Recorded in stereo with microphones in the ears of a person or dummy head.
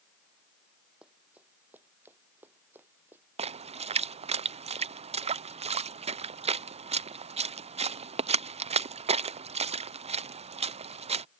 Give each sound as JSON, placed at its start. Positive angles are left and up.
{"t": 1.0, "sound": "running footsteps", "side_deg": -10}
{"t": 3.4, "sound": "a splash", "side_deg": -30}